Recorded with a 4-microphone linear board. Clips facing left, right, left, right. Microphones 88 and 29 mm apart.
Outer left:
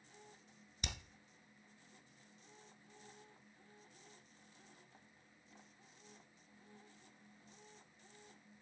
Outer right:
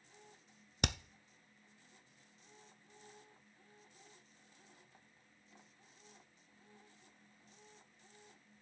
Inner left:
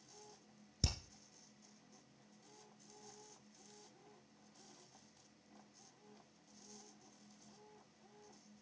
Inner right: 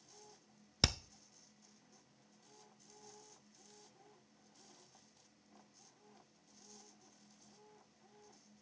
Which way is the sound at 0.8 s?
65° right (ahead or behind).